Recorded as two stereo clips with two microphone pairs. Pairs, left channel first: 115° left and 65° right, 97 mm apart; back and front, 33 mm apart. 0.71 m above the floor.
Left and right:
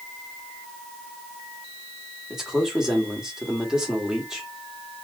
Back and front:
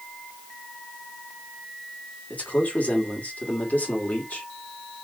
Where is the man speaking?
145° right, 1.6 m.